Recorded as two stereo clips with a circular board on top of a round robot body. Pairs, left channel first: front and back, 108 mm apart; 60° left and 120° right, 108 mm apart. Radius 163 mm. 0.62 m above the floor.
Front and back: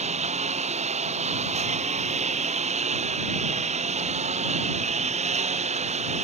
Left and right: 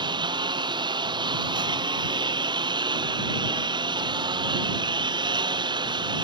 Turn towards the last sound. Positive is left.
turn(degrees=-170)